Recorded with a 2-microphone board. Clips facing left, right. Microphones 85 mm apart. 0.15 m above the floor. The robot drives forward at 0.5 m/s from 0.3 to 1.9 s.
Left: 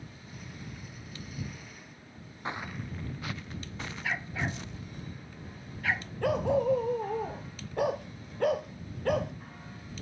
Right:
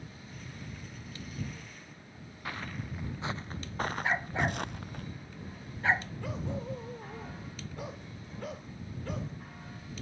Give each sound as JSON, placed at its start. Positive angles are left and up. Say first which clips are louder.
{"t": 2.5, "sound": "footsteps", "louder": "left 2 dB", "side_deg": 25}
{"t": 4.0, "sound": "a dog barking", "louder": "right 1 dB", "side_deg": -30}
{"t": 6.2, "sound": "a dog barking", "louder": "left 11 dB", "side_deg": 75}